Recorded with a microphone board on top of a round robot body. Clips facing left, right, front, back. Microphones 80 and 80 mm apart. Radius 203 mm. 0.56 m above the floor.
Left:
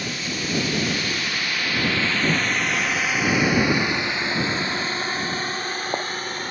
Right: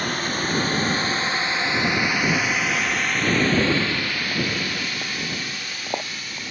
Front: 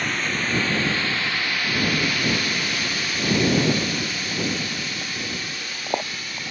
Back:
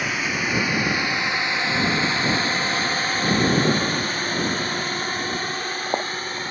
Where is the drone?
100° right; by 6.5 s 130° left.